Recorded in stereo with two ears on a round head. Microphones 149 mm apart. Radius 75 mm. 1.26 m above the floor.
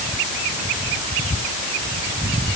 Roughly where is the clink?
No clink in this recording.